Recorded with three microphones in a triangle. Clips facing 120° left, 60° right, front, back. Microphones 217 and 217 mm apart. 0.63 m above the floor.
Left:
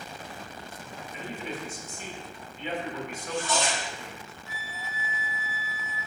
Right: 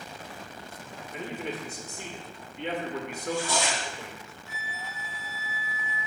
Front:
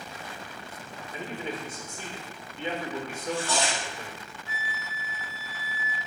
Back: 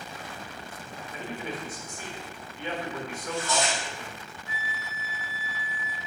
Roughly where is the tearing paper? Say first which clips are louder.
Even, back 1 dB; ahead.